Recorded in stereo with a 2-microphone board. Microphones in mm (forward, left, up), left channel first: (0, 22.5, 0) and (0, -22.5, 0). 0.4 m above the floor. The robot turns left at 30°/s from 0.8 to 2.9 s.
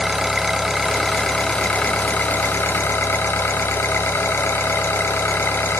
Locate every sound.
0.0 s an engine running: 175° right, 0.8 m; by 5.8 s 125° left, 0.8 m